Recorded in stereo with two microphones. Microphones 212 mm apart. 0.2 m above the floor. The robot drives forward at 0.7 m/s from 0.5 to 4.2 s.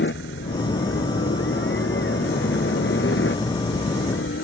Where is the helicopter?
65° left (ahead or behind).